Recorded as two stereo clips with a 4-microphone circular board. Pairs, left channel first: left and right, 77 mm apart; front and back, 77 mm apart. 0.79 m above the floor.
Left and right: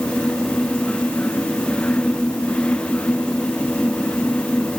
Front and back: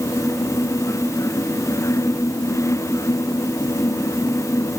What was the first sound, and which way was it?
Only background noise.